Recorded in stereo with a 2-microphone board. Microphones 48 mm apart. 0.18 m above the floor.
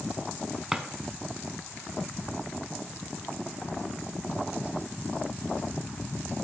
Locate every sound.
0.7 s a drawer: 10° right (ahead or behind), 0.8 m